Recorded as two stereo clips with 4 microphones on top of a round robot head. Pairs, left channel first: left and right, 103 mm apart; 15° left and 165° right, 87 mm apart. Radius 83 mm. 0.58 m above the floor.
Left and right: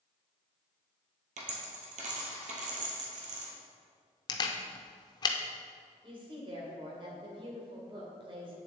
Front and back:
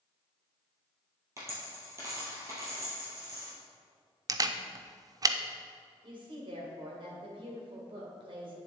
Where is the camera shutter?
145° left, 0.6 m.